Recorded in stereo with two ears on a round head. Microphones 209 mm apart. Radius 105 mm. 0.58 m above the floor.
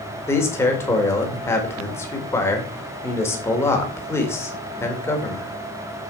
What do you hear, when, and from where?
0.3 s a man speaking: 10° left (ahead or behind), 2 m